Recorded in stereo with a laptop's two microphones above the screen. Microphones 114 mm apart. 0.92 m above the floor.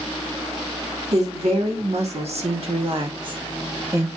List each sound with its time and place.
1.1 s a woman speaking: 75° right (ahead or behind), 2.5 m; by 4.1 s 20° right (ahead or behind), 1.5 m